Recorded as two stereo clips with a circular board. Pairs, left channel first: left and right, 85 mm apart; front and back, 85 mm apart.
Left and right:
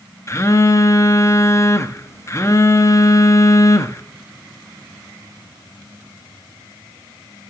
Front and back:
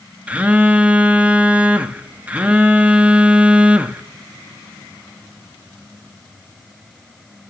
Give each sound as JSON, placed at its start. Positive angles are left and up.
{"t": 0.3, "sound": "a phone buzzing", "azimuth_deg": 115, "distance_m": 0.6}